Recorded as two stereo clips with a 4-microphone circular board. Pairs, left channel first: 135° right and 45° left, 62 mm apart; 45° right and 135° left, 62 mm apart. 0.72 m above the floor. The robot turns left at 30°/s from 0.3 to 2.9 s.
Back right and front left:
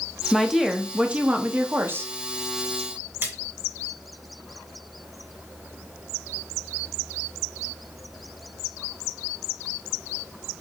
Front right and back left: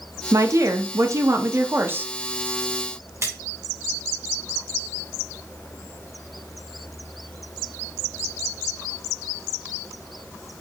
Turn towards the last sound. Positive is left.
turn(degrees=95)